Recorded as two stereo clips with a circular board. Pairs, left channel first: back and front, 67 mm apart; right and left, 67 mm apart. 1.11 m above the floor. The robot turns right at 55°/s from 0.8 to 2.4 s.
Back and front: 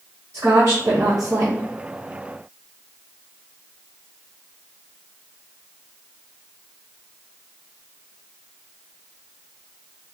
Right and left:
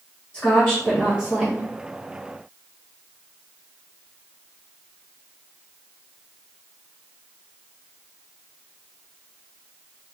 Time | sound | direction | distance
0.3 | a woman speaking | 45° right | 1.2 m